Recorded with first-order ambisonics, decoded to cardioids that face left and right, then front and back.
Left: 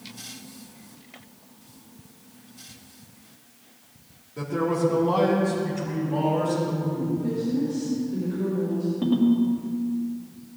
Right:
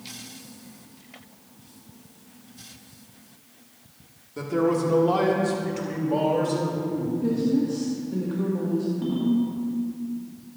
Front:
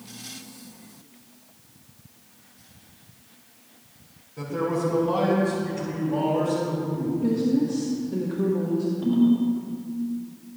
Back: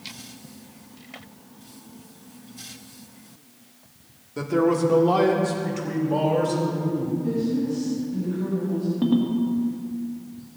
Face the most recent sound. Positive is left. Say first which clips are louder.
# left 3 dB, front 1 dB
turn(degrees=155)